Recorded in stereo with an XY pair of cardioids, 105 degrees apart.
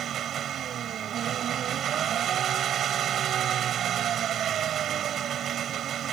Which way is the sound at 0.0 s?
65° right.